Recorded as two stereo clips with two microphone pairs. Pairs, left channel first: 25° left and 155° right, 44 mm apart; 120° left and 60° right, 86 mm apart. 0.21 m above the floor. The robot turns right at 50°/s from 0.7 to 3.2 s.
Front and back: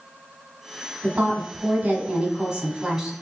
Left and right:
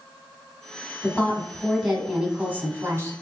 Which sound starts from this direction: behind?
A woman speaking, at 1.0 s.